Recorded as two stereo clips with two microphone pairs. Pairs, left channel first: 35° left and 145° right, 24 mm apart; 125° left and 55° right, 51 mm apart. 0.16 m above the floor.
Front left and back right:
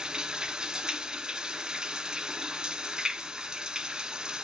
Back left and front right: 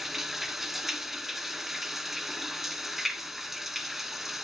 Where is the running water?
135° right, 0.8 m.